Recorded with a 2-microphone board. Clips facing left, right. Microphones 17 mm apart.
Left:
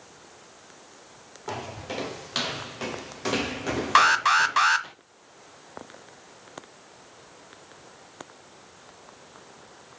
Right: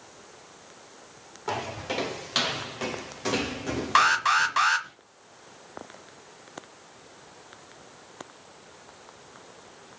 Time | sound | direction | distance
1.5 | footsteps | 15° right (ahead or behind) | 3.5 m
4.0 | an alarm | 15° left (ahead or behind) | 1.2 m